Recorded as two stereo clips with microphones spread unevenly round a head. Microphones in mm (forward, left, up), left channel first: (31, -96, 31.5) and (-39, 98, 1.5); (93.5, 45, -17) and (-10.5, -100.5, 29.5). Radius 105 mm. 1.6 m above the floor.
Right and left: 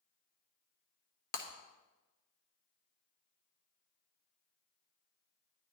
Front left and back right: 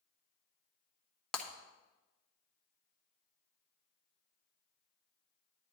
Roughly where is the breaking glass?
Ahead right.